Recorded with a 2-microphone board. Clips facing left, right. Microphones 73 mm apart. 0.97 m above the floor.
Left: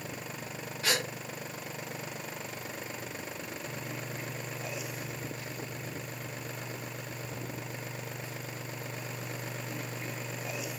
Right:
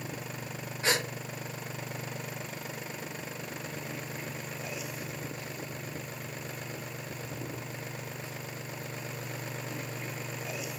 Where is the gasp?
25° right (ahead or behind), 0.7 m.